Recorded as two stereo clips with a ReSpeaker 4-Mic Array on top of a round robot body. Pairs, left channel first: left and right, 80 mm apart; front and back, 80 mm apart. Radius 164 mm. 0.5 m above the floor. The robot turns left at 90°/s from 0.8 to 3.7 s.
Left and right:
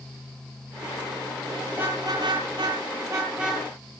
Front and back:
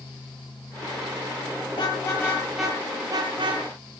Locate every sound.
1.7 s a car horn: 15° right, 10 m; by 3.6 s 175° left, 10 m